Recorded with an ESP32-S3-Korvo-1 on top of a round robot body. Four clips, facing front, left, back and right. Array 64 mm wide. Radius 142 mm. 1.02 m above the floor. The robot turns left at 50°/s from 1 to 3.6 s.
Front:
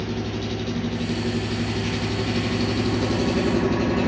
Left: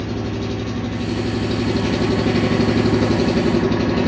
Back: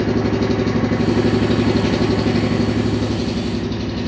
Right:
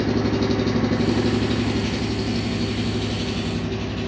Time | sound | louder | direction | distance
0.0 | an engine running | right 4 dB, back 10 dB | 160° right | 0.8 m